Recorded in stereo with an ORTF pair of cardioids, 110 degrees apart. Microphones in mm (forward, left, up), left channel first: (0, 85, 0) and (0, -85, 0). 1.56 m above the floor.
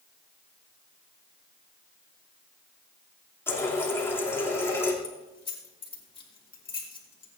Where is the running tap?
15° left, 2.5 m.